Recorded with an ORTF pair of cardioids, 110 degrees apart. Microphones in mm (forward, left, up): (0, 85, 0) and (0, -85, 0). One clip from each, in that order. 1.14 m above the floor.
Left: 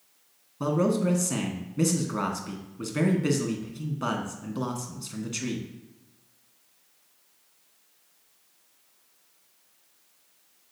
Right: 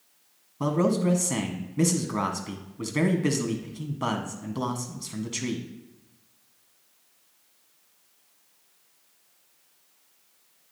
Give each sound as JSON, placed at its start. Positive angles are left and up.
{"t": 0.6, "sound": "a man speaking", "azimuth_deg": -15, "distance_m": 1.3}